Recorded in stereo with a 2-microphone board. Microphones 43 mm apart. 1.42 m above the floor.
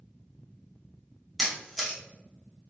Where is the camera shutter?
Centre (ahead or behind), 1.3 m.